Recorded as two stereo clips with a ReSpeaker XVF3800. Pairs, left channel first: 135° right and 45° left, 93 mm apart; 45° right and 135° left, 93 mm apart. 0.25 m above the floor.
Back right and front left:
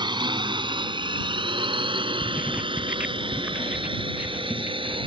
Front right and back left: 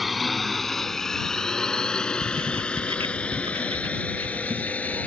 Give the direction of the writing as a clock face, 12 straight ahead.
8 o'clock.